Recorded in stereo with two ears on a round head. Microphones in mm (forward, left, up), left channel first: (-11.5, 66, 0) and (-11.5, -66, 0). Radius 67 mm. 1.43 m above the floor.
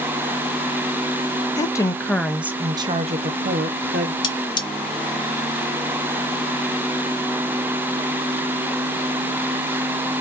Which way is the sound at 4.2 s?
30° left (ahead or behind).